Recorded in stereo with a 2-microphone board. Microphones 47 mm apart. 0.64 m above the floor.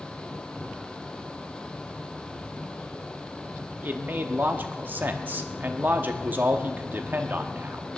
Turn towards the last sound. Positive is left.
turn(degrees=-45)  # may be behind; listen again after turning